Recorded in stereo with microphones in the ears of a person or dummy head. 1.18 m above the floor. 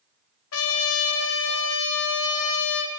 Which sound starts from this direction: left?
A trumpet, at 0.5 s.